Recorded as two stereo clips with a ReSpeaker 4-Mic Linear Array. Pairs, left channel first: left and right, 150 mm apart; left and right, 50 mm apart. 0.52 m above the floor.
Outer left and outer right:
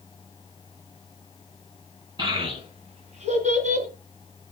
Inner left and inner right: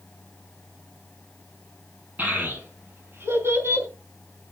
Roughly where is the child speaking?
Right.